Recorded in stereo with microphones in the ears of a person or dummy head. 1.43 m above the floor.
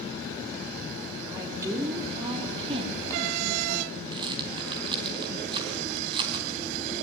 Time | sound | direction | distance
1.3 | a woman speaking | 10° right (ahead or behind) | 3.5 m
4.1 | a rattle | 25° right (ahead or behind) | 3 m